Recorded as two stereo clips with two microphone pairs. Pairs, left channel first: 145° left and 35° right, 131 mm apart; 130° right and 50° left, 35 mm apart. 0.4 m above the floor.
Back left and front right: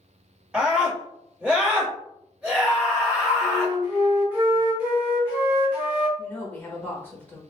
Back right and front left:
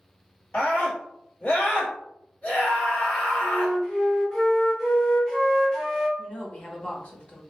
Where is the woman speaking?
150° right, 1.0 m.